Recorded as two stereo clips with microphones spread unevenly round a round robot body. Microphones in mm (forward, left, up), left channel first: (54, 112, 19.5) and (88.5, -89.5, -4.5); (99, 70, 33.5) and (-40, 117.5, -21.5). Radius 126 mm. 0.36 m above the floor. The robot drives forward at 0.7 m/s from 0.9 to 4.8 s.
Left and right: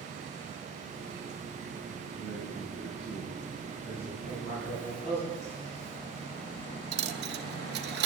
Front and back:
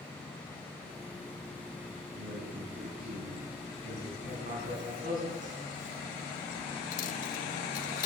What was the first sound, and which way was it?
A man speaking, 175° left.